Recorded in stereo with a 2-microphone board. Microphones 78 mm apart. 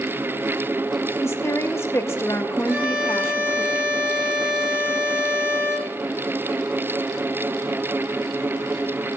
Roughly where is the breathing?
No breathing in this recording.